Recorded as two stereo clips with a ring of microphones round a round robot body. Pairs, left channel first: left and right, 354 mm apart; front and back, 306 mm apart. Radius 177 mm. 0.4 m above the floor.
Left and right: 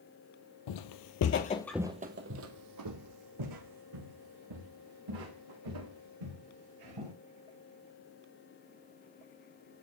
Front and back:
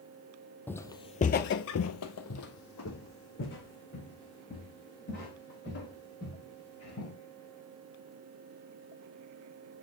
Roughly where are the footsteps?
Left.